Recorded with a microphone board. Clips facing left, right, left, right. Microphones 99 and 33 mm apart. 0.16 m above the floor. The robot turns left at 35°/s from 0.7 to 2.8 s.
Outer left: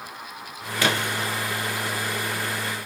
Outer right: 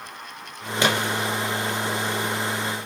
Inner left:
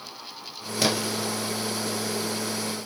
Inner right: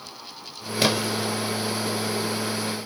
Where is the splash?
20° right (ahead or behind), 4 m; by 1.3 s 5° right (ahead or behind), 4 m.